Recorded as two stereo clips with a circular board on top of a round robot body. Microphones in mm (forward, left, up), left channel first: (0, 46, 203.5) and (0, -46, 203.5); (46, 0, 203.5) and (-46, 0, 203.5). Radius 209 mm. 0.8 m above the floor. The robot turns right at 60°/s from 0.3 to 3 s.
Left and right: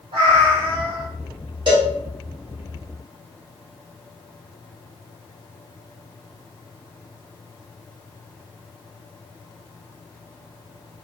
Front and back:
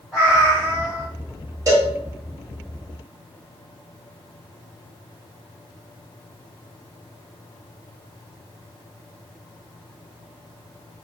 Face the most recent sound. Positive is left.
turn(degrees=-45)